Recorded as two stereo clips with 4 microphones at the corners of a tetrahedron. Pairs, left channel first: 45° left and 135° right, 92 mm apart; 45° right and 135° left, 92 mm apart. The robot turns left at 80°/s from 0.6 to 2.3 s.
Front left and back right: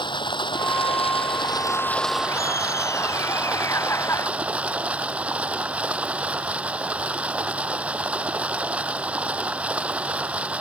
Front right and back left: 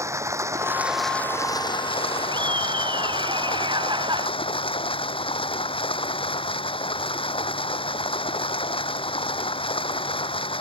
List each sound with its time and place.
0.0 s running water: 75° left; by 10.6 s 60° right
2.3 s laughter: 105° left